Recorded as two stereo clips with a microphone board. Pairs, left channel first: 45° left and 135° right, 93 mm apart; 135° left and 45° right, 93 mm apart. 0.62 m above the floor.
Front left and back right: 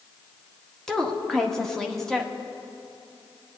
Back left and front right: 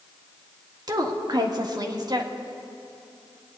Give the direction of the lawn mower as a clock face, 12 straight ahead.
I don't hear a lawn mower.